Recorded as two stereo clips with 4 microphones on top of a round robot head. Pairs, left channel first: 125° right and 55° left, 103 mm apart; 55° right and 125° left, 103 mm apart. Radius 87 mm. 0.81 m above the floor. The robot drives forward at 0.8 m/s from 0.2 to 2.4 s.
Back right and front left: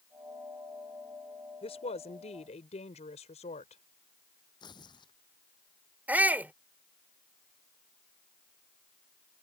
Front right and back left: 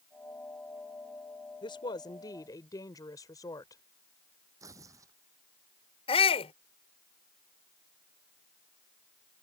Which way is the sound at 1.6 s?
100° right.